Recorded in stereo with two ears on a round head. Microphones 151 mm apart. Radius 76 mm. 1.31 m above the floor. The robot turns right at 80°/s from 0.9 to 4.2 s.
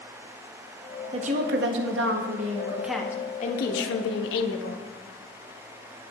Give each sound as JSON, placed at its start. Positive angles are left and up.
{"t": 1.1, "sound": "a woman speaking", "azimuth_deg": -145, "distance_m": 0.7}